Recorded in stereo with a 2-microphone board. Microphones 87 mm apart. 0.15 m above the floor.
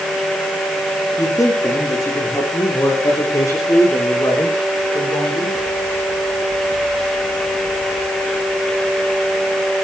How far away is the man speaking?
About 7.5 m.